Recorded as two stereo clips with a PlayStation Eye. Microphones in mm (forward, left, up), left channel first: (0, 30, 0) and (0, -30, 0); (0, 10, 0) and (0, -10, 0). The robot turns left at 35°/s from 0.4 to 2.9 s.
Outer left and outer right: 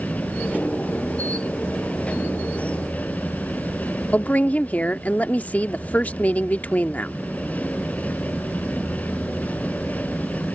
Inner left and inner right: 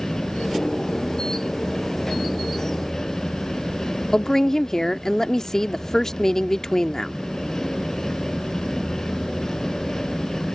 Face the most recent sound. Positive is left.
turn(degrees=30)  # may be behind; listen again after turning